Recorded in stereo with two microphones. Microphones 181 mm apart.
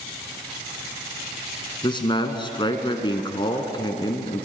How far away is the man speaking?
About 1.3 m.